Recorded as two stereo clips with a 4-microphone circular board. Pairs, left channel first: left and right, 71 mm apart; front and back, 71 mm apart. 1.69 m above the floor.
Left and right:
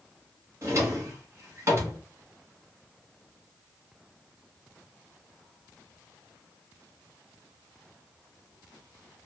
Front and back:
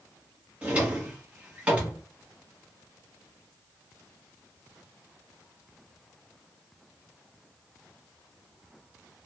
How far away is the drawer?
About 1.1 m.